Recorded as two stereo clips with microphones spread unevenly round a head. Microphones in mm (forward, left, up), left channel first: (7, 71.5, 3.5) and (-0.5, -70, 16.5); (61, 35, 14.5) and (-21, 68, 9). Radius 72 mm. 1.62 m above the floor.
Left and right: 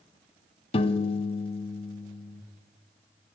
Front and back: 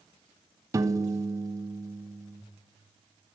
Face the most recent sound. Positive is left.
turn(degrees=125)